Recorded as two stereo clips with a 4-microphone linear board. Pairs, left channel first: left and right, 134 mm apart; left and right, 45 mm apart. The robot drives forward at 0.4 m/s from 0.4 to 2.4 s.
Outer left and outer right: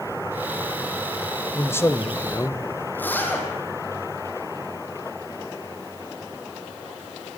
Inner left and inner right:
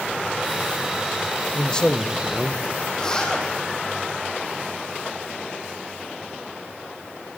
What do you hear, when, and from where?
1.5 s a man speaking: 20° left (ahead or behind), 1.2 m
2.9 s a zipper: 15° left (ahead or behind), 3.5 m